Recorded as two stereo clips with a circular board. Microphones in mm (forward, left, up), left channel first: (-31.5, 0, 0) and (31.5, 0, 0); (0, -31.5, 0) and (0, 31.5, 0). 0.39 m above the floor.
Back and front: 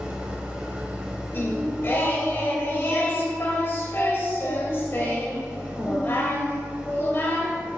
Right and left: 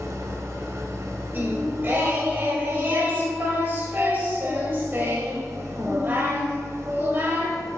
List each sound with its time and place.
0.0 s an engine running: 70° left, 1.3 m
1.3 s singing: 135° left, 1.6 m